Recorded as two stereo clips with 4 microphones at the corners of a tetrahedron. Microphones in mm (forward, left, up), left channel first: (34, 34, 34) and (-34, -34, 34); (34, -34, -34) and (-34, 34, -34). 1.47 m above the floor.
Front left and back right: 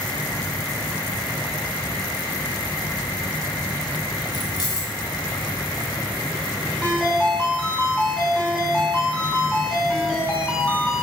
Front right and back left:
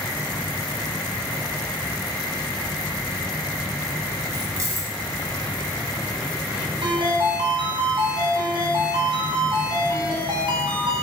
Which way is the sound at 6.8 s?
120° left.